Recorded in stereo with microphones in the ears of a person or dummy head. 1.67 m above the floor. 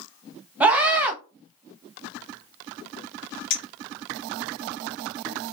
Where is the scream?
10° right (ahead or behind), 0.7 m.